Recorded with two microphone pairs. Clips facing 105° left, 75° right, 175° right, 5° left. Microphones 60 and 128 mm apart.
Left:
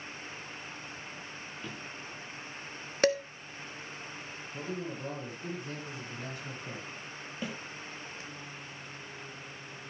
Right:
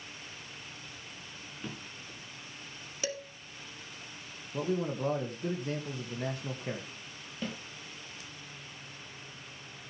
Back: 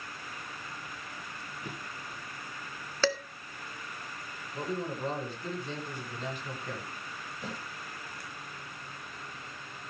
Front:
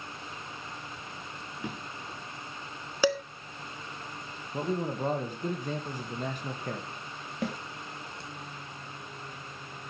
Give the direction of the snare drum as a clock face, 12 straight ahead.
11 o'clock.